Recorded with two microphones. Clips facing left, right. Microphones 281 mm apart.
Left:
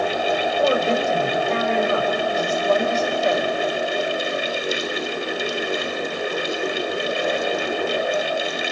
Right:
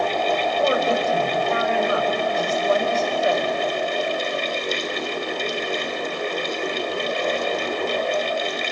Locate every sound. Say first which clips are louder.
0.6 s a woman speaking: left 2 dB; 35° left (ahead or behind), 4.5 m